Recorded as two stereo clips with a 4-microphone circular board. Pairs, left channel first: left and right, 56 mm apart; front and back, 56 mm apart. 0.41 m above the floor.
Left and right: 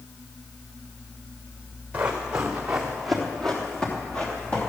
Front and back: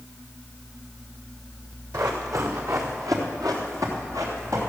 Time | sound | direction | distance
1.9 | running footsteps | 155° right | 3 m